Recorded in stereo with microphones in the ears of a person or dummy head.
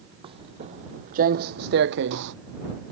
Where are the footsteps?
25° right (ahead or behind); by 2.3 s 55° right (ahead or behind).